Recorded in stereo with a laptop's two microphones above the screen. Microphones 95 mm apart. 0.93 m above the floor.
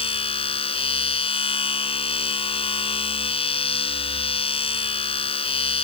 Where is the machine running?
85° left.